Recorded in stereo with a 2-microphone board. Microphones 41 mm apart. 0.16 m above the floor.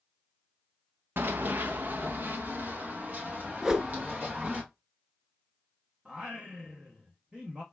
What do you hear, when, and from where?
1.2 s running footsteps: 65° right (ahead or behind), 0.5 m; by 4.6 s 45° right (ahead or behind), 3.5 m
3.6 s a whoosh: 15° right (ahead or behind), 0.7 m
6.0 s singing: 25° right (ahead or behind), 1.3 m